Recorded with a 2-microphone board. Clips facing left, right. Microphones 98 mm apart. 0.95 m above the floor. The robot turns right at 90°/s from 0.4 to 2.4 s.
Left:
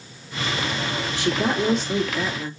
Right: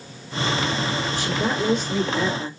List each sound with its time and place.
1.1 s a woman speaking: 75° left, 1.9 m; by 2.5 s 170° right, 1.9 m